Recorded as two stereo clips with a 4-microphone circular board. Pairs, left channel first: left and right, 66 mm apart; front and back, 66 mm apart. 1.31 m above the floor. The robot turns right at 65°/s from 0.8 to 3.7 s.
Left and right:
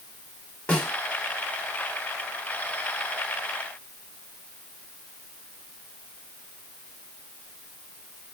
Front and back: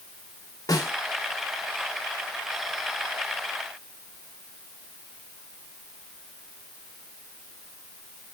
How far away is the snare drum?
About 3 m.